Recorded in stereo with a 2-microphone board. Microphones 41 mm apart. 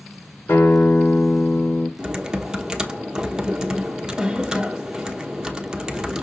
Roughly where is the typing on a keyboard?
Centre.